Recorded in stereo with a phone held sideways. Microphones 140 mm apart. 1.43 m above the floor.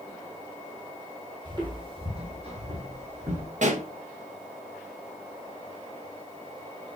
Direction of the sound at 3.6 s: 60° right (ahead or behind).